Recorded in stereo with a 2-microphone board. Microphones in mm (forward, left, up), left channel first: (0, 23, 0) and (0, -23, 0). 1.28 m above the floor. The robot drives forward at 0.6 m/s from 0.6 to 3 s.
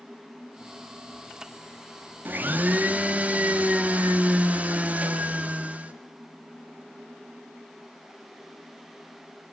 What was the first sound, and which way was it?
A blender, 45° right (ahead or behind).